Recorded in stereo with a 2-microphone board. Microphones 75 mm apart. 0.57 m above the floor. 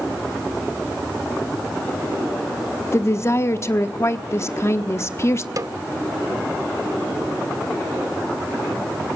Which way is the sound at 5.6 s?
50° right (ahead or behind).